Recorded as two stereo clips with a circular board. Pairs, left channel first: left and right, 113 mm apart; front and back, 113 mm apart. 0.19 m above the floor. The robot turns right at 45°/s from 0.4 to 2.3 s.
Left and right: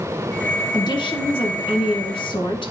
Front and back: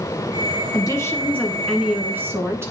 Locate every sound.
0.7 s a woman speaking: 45° left, 1.6 m; by 2.7 s 115° left, 1.6 m